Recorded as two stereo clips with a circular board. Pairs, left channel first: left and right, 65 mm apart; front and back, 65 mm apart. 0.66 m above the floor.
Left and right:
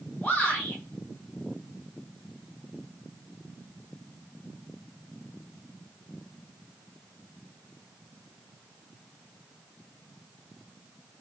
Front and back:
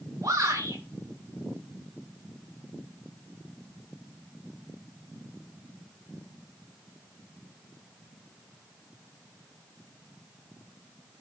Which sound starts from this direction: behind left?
A shout, at 0.2 s.